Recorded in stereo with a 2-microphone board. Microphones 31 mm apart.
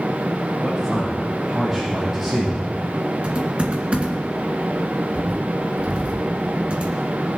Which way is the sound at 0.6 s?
Centre (ahead or behind).